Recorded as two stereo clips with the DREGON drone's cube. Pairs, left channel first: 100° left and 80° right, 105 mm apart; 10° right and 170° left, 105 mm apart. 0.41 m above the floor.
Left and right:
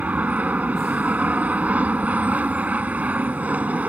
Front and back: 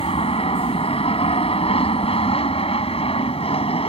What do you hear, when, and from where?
0.0 s an aircraft: 5° right